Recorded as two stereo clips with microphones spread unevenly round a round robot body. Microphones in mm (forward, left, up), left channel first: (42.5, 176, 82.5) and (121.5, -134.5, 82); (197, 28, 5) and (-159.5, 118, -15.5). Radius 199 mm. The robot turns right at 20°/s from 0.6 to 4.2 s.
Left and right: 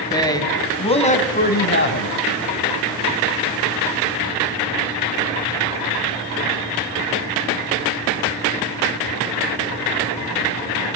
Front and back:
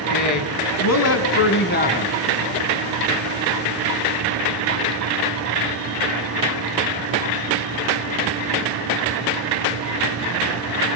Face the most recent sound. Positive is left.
turn(degrees=100)